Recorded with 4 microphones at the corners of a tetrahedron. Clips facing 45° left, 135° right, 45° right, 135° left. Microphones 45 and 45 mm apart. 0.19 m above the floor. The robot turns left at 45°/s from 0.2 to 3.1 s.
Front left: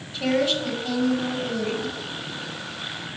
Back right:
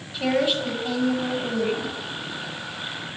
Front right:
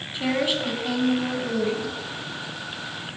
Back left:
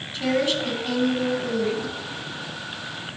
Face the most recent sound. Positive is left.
turn(degrees=160)